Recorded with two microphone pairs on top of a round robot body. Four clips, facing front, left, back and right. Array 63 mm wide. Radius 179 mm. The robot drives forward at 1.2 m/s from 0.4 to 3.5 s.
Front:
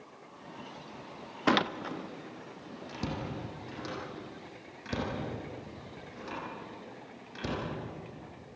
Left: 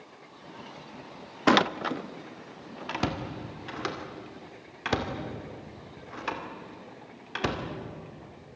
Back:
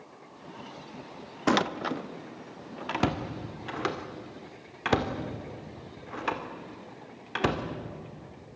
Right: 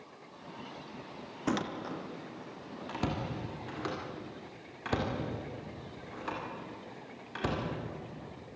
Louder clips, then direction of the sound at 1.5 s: Left 11 dB, back 2 dB; 80° left.